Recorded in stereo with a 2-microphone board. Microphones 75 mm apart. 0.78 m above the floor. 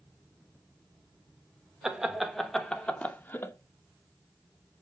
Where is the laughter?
5° right (ahead or behind), 3 m; by 3.5 s 35° left (ahead or behind), 2.5 m.